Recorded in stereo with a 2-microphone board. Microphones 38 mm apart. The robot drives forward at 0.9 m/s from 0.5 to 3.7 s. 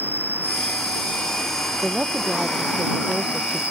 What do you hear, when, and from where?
0.0 s an insect: 55° right (ahead or behind); by 3.7 s 40° right (ahead or behind)
1.8 s a woman speaking: 20° right (ahead or behind); by 3.6 s 25° right (ahead or behind)